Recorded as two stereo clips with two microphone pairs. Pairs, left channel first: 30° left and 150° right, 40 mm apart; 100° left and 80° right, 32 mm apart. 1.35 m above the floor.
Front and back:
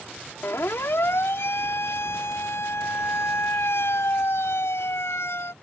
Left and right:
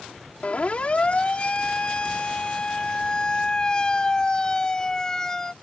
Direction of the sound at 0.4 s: 45° left.